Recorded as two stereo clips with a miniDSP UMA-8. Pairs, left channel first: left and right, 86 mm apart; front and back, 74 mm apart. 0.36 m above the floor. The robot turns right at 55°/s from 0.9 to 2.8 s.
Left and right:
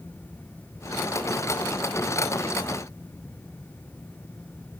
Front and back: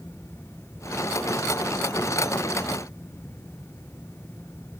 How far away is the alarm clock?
No alarm clock in this recording.